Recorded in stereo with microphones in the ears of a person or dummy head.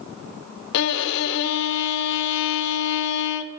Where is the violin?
65° left (ahead or behind), 0.6 m.